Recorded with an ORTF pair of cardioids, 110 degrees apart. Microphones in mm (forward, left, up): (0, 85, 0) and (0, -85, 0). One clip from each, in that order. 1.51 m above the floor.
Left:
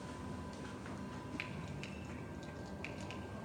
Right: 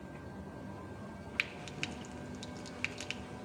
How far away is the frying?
About 0.8 m.